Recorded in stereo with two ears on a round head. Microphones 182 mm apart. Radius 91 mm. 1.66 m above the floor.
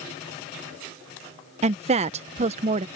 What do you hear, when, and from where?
1.6 s a woman speaking: 35° right (ahead or behind)